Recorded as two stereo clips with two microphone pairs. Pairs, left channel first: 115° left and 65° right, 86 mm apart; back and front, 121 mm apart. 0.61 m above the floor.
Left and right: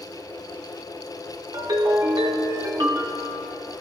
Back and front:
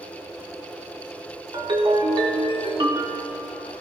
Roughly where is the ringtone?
Ahead right.